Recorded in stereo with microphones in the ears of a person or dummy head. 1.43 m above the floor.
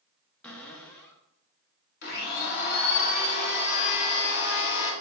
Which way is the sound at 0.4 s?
10° left (ahead or behind).